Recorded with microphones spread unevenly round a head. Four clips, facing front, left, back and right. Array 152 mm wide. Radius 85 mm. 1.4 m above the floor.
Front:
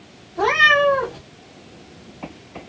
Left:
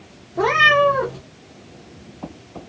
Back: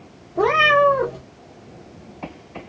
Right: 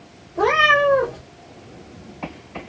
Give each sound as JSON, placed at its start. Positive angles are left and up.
{"t": 0.3, "sound": "a cat meowing", "azimuth_deg": 150, "distance_m": 1.5}